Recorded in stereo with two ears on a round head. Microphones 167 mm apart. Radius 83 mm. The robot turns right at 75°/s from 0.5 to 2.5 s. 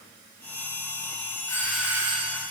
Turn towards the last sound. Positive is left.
turn(degrees=-125)